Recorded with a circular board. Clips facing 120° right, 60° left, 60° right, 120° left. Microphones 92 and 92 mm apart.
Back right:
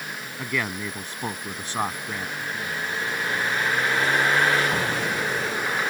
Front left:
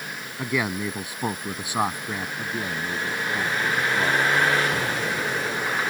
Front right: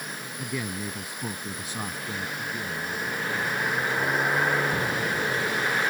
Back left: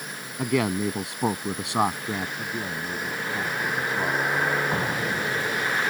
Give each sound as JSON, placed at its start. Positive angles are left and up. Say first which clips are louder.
{"t": 0.4, "sound": "a man speaking", "louder": "front left 3 dB, back left 10 dB", "azimuth_deg": 140}
{"t": 2.4, "sound": "a man speaking", "louder": "front left 1 dB, back left 1 dB", "azimuth_deg": 70}
{"t": 4.7, "sound": "an explosion", "louder": "back right 1 dB, back left 1 dB", "azimuth_deg": 175}